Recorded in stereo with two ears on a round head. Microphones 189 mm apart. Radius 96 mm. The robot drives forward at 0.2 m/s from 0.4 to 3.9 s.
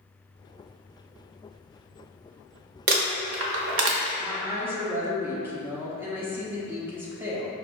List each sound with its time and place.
2.9 s crumpling: 45° right (ahead or behind), 0.6 m; by 4.1 s 60° right (ahead or behind), 0.5 m
4.2 s a woman speaking: 10° right (ahead or behind), 0.6 m